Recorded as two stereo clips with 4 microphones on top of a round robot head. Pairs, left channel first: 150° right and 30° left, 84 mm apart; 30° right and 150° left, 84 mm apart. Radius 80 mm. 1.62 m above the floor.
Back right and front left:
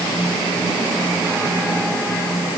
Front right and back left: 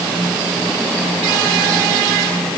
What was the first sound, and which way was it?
Only background noise.